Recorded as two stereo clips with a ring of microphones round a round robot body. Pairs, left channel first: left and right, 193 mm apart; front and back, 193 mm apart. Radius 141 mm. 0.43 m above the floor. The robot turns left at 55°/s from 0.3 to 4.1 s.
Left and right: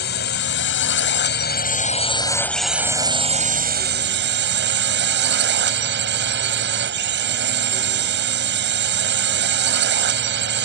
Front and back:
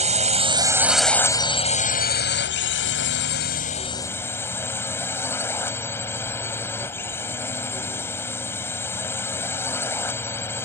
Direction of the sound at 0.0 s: 130° left.